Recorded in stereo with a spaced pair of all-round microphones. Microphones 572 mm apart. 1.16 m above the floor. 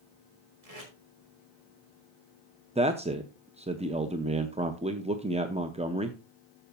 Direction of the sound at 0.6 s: 85° right.